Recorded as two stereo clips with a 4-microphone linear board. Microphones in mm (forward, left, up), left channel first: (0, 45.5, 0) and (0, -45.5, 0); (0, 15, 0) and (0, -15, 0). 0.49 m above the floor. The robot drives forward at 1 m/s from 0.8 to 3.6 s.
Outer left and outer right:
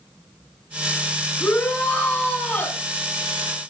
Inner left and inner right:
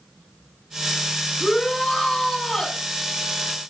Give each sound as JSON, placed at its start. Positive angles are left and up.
{"t": 1.4, "sound": "a shout", "side_deg": 15, "distance_m": 6.0}